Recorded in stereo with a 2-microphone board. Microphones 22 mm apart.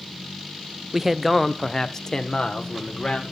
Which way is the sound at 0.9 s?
20° right (ahead or behind).